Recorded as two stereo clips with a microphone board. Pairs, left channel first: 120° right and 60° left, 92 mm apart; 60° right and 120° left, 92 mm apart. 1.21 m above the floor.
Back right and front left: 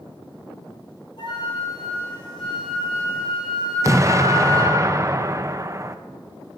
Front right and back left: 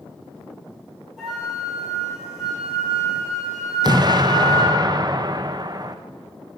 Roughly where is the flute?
Behind right.